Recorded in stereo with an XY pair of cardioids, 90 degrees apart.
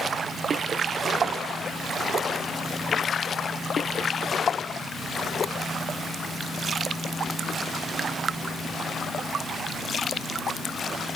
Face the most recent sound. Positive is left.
No sound to turn to.